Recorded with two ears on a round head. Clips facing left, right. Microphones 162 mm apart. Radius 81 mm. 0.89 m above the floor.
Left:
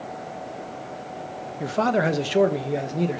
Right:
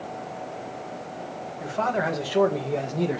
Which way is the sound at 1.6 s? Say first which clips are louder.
Left 4 dB; 50° left (ahead or behind).